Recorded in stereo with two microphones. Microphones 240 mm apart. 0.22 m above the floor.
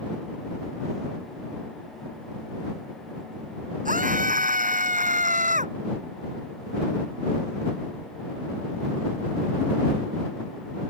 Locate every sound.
3.9 s a scream: 35° right (ahead or behind); by 5.7 s 30° right (ahead or behind)